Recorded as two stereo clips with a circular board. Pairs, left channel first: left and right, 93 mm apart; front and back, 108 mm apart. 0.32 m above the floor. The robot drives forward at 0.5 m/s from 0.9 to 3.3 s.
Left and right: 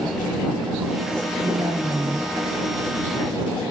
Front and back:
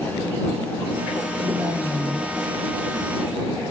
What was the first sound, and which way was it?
A woman speaking, 135° right.